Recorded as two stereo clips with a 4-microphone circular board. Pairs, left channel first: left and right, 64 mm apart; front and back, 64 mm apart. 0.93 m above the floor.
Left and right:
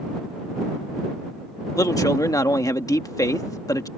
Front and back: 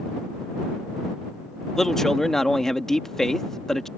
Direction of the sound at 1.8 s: 85° left.